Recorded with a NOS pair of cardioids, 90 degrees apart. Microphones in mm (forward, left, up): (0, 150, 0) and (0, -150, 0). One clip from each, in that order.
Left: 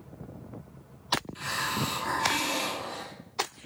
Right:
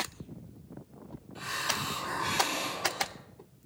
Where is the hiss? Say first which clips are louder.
Left 2 dB; 40° left, 2.5 m.